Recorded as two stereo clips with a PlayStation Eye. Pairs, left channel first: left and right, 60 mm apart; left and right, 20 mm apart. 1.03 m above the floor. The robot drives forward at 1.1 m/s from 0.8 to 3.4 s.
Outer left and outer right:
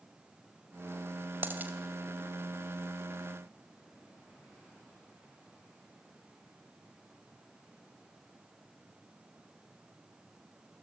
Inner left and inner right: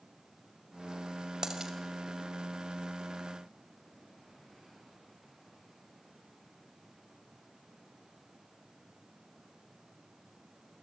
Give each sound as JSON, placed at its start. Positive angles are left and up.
{"t": 1.4, "sound": "a dropped coin", "side_deg": -35, "distance_m": 2.0}